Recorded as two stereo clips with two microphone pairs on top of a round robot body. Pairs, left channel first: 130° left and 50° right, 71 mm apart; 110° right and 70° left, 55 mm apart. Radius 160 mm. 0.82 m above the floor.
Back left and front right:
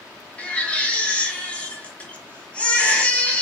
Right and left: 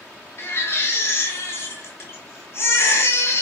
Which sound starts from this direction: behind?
A baby crying, at 0.4 s.